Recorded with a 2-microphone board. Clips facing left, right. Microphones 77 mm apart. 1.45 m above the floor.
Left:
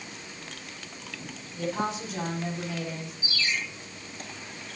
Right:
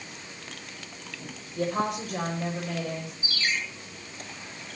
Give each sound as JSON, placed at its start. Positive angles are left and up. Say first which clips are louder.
{"t": 1.6, "sound": "a woman speaking", "louder": "right 2 dB", "side_deg": -65, "distance_m": 8.5}
{"t": 3.2, "sound": "a ringtone", "louder": "even", "side_deg": -60, "distance_m": 10.0}